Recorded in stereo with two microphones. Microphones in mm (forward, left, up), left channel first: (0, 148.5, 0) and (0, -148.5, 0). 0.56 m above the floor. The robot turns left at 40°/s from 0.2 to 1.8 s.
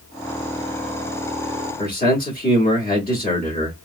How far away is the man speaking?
About 1.3 m.